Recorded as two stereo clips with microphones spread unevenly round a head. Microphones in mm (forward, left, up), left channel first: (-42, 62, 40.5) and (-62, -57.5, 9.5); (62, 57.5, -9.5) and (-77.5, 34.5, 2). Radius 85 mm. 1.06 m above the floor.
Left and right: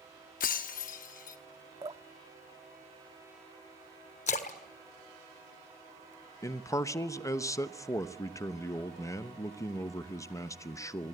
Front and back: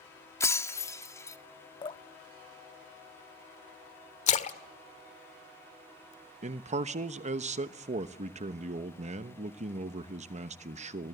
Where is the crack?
No crack in this recording.